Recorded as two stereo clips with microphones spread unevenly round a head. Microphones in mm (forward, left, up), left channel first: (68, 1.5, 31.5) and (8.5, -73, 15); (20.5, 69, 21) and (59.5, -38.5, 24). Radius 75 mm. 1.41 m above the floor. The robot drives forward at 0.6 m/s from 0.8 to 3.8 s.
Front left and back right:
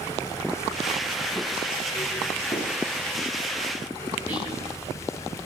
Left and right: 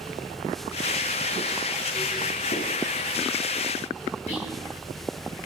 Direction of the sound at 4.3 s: 155° left.